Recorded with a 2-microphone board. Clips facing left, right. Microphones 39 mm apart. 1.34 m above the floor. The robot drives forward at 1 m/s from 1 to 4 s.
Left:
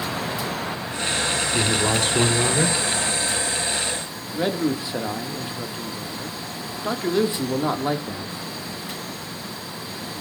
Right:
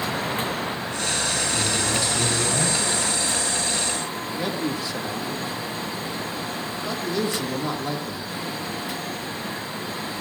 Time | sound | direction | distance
1.5 | a man speaking | 60° left (ahead or behind) | 2.5 m
4.3 | a man speaking | 20° left (ahead or behind) | 1.8 m